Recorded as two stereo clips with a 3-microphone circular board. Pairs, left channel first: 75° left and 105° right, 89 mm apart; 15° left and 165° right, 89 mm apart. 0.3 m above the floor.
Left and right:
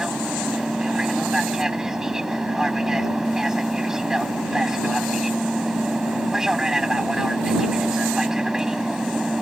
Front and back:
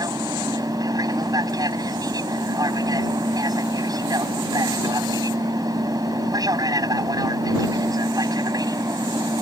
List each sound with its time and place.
0.0 s an aircraft: 170° left